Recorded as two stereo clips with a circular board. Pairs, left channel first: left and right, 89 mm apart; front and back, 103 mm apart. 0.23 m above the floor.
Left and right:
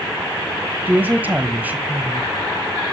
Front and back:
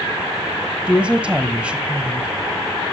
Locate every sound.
0.9 s a woman speaking: 120° right, 1.3 m